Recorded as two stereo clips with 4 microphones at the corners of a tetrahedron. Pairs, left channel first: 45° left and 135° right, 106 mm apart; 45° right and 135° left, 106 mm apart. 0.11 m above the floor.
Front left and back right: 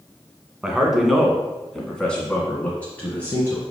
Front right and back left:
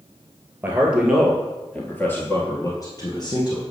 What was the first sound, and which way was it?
A man speaking, 155° left.